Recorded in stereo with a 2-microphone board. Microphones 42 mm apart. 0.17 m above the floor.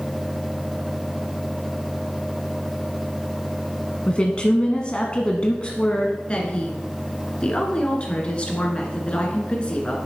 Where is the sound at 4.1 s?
25° left (ahead or behind), 1.2 m.